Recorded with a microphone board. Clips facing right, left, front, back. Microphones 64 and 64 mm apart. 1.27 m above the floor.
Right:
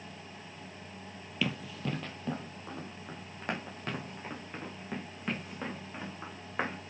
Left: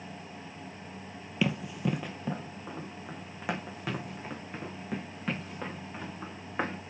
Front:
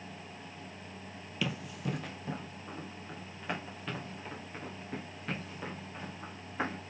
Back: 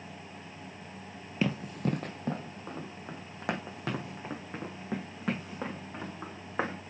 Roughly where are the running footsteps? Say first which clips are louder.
Left 5 dB, back 6 dB; behind left.